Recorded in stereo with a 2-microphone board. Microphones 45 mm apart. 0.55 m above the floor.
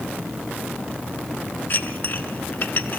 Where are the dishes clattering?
50° left (ahead or behind), 1.4 m.